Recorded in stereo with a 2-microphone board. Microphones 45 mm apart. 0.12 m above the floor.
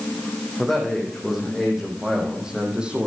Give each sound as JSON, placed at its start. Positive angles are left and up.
{"t": 0.6, "sound": "a man speaking", "side_deg": 0, "distance_m": 5.0}